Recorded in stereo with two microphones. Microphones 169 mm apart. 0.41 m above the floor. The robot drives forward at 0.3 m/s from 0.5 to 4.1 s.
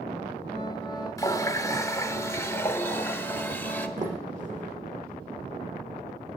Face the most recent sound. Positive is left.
turn(degrees=-50)  # may be behind; listen again after turning